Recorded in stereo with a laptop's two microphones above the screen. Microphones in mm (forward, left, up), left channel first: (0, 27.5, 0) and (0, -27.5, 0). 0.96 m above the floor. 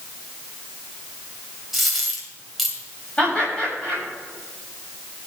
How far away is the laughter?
About 6 m.